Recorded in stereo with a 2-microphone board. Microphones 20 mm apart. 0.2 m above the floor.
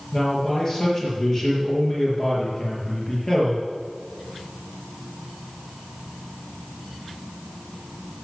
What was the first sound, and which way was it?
A man speaking, 30° left (ahead or behind).